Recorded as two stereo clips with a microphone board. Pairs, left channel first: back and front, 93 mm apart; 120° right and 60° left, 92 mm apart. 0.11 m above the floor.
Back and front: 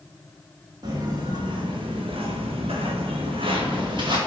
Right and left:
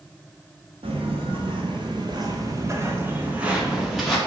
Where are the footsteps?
45° left, 2.5 m; by 4.2 s 35° right, 2.5 m.